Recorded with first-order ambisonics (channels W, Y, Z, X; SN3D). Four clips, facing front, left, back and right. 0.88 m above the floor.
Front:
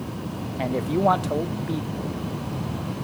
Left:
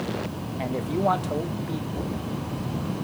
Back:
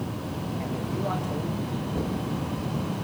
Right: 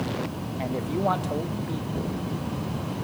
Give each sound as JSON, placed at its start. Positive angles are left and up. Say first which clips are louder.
{"t": 0.6, "sound": "a man speaking", "louder": "left 2 dB, front 11 dB", "azimuth_deg": 5, "distance_m": 1.0}
{"t": 1.9, "sound": "knocking", "louder": "even, back 1 dB", "azimuth_deg": -150, "distance_m": 8.0}